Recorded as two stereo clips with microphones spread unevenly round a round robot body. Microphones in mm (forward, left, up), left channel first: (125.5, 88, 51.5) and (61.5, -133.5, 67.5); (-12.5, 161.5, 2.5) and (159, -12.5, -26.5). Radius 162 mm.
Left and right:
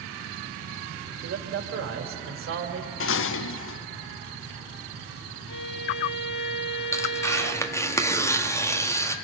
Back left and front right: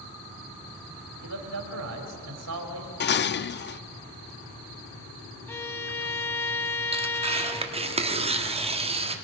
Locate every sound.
1.2 s a man speaking: 75° right, 2.5 m
3.0 s dishes clattering: 85° left, 0.6 m
5.5 s a violin: 75° left, 0.5 m
6.9 s tearing paper: 5° left, 1.5 m